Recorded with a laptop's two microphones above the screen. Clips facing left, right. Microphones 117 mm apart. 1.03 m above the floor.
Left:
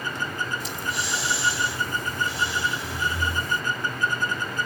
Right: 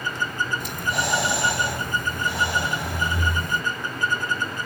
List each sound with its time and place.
0.6 s breathing: 60° right (ahead or behind)